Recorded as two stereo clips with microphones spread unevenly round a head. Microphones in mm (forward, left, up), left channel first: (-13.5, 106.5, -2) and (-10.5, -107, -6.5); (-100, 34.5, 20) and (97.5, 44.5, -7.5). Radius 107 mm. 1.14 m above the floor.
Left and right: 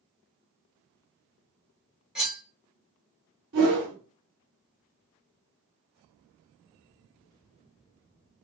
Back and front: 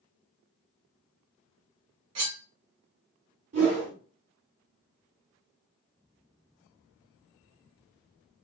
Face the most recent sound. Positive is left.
turn(degrees=-55)